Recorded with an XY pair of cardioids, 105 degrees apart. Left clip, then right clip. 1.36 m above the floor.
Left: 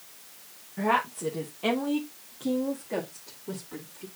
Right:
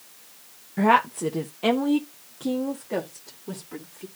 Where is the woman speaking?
55° right, 0.9 m; by 4.0 s 20° right, 2.5 m.